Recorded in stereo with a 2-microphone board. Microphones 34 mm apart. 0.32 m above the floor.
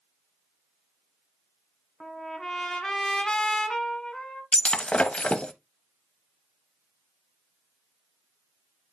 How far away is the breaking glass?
About 0.7 m.